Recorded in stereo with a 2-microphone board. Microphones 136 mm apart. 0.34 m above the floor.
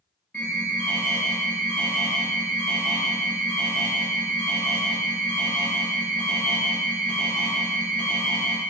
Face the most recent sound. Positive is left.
turn(degrees=10)  # may be behind; listen again after turning